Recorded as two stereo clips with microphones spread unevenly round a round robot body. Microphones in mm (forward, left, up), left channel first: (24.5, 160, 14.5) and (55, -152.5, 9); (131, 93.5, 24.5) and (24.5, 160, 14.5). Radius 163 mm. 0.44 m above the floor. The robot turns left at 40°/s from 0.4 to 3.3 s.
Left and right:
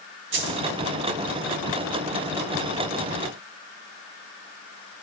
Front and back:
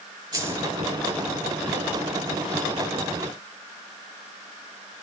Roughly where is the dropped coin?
Behind right.